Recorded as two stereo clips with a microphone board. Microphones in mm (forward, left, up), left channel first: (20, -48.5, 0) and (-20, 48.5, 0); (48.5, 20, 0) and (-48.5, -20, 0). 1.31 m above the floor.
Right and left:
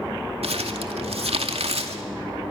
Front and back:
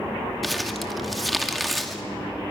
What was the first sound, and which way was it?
Crumpling, 110° left.